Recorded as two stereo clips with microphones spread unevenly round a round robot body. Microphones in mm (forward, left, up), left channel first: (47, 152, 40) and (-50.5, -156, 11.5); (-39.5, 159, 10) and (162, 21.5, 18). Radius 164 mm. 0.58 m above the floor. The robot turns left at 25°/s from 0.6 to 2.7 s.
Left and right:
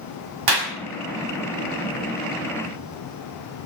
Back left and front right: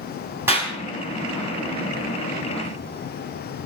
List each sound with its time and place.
0.5 s a clap: 115° right, 4 m; by 0.7 s 120° right, 4 m